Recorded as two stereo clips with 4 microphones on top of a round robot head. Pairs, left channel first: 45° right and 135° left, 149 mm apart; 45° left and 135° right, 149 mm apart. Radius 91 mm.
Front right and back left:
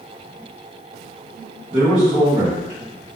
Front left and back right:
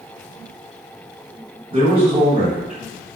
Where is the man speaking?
175° right, 1.8 m.